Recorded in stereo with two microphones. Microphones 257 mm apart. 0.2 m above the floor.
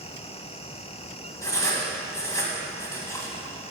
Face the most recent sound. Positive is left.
turn(degrees=10)  # may be behind; listen again after turning